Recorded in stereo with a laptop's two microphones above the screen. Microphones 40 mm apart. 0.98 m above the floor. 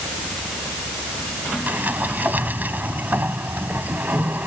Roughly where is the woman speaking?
I don't hear a woman speaking.